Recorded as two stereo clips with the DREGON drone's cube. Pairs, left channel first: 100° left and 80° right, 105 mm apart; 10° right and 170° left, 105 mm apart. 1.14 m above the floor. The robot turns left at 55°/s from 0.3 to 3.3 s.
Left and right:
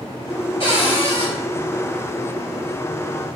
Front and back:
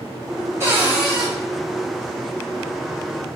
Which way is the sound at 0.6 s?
110° left.